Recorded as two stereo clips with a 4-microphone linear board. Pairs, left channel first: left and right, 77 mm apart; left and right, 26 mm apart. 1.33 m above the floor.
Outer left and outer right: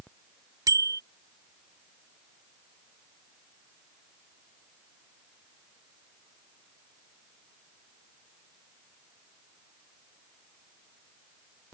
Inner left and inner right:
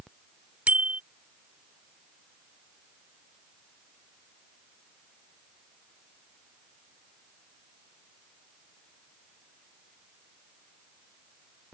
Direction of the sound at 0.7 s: 55° right (ahead or behind).